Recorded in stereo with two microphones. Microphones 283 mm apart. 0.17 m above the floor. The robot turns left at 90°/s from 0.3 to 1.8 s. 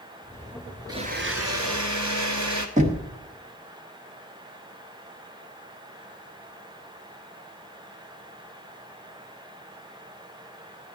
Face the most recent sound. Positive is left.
turn(degrees=-25)  # may be behind; listen again after turning